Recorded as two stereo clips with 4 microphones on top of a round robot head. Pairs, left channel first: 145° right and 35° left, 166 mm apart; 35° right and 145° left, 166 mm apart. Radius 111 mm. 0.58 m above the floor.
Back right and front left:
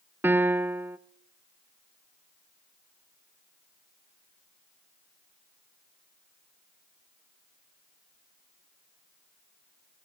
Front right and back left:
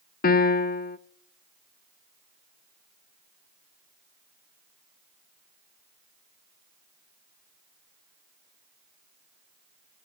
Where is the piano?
40° right, 0.6 m.